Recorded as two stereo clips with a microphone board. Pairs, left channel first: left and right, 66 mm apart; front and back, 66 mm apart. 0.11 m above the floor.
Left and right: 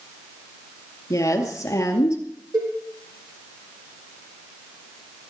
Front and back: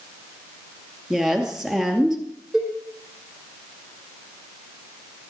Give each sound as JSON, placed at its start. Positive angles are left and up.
{"t": 1.1, "sound": "a woman speaking", "azimuth_deg": 100, "distance_m": 2.5}
{"t": 2.5, "sound": "a cowbell", "azimuth_deg": -95, "distance_m": 3.0}